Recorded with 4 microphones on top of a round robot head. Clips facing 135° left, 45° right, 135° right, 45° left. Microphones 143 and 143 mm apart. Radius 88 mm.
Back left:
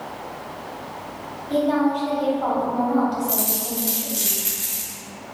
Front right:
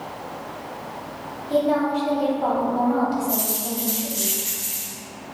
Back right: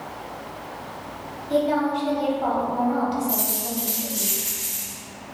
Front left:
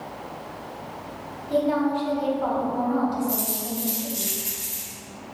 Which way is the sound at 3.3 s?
115° left.